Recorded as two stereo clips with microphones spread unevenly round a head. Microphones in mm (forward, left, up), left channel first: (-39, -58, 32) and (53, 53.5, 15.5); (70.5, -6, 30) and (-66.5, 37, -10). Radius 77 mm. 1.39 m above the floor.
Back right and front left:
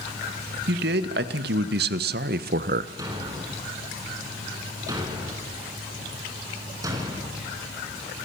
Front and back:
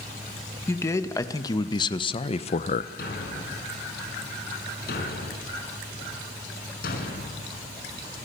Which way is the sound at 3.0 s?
20° right.